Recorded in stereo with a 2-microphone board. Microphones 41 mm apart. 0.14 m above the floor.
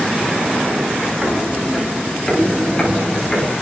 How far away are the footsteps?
About 6.5 m.